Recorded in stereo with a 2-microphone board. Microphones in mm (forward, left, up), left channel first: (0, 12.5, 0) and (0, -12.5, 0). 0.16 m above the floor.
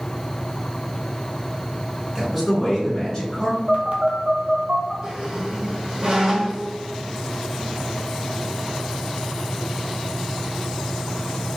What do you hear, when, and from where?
2.1 s a man speaking: 10° right (ahead or behind), 1.8 m; by 3.6 s 35° left (ahead or behind), 2 m
3.7 s a phone buzzing: 55° right (ahead or behind), 0.9 m
5.0 s a squeak: 35° right (ahead or behind), 1.3 m